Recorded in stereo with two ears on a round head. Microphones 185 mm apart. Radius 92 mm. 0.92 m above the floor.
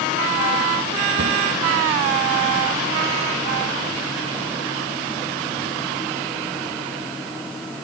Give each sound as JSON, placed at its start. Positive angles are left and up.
{"t": 1.2, "sound": "a cupboard door", "side_deg": -55, "distance_m": 1.1}